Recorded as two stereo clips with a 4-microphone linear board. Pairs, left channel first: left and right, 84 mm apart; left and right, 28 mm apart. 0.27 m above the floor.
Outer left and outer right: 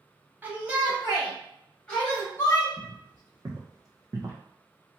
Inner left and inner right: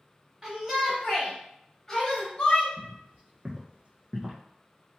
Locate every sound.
0.4 s a shout: 20° right (ahead or behind), 1.4 m; by 2.7 s 30° left (ahead or behind), 1.3 m
2.8 s footsteps: 50° right (ahead or behind), 1.4 m; by 4.4 s 35° right (ahead or behind), 0.6 m